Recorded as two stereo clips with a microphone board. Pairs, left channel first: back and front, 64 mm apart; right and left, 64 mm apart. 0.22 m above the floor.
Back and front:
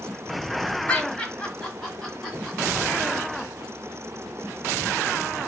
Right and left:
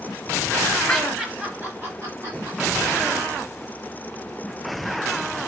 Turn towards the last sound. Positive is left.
turn(degrees=85)